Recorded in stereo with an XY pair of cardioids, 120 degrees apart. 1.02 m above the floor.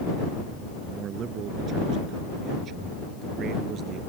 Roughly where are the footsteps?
No footsteps in this recording.